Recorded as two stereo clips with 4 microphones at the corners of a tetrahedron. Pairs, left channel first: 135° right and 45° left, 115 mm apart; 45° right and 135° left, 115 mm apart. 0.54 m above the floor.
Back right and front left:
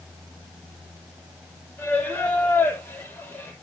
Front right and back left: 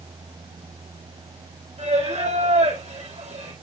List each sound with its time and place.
1.8 s singing: 150° left, 5.5 m